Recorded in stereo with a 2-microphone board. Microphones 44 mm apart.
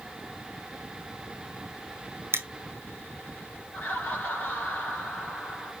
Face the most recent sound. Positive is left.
turn(degrees=35)  # may be behind; listen again after turning